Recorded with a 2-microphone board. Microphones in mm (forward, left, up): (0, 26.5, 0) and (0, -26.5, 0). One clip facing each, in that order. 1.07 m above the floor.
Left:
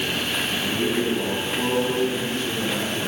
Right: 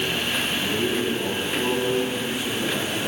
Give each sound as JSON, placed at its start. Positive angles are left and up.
{"t": 0.5, "sound": "a man speaking", "side_deg": 35, "distance_m": 8.5}